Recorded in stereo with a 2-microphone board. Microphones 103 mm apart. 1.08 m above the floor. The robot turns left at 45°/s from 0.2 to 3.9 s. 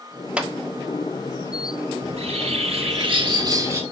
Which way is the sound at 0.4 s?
10° right (ahead or behind).